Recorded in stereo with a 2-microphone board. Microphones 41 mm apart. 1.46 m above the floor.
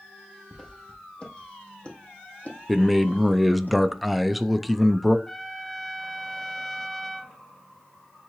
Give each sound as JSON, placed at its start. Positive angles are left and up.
{"t": 0.5, "sound": "footsteps", "side_deg": 10, "distance_m": 2.0}
{"t": 2.7, "sound": "a man speaking", "side_deg": 0, "distance_m": 0.5}
{"t": 5.3, "sound": "a trumpet", "side_deg": 5, "distance_m": 0.8}